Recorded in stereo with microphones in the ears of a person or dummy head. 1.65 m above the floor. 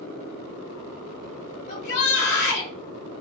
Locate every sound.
1.7 s a shout: 55° left (ahead or behind), 1.2 m